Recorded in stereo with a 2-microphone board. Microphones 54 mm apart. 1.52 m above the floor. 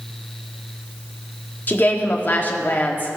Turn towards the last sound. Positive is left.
turn(degrees=35)  # may be behind; listen again after turning